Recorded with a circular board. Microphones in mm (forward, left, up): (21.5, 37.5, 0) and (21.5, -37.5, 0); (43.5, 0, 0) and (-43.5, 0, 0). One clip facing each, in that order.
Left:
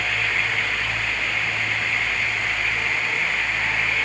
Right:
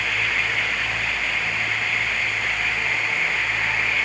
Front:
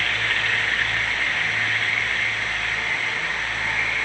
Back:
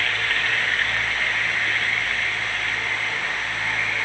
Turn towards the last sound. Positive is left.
No sound to turn to.